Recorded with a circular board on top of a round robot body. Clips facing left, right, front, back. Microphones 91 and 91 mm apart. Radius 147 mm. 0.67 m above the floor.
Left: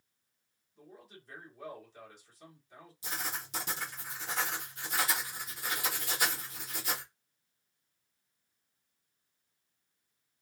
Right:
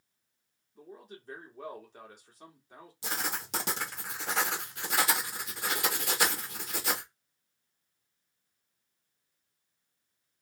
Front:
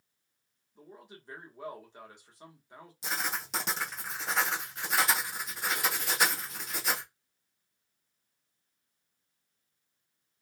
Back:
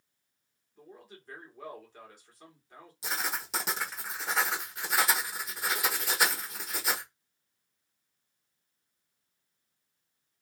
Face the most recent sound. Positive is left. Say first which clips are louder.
# right 4 dB, even
turn(degrees=-95)